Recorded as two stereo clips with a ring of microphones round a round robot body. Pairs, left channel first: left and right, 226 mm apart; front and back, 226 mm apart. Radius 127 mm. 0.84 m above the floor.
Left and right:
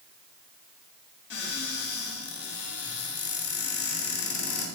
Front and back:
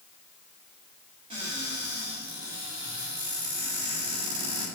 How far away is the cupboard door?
About 5 m.